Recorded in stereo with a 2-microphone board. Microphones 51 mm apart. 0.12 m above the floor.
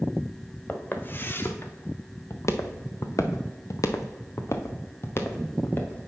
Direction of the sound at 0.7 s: 35° left (ahead or behind).